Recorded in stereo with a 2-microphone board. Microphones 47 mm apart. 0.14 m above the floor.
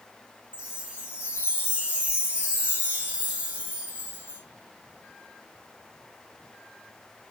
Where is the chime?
25° right (ahead or behind), 1.5 m.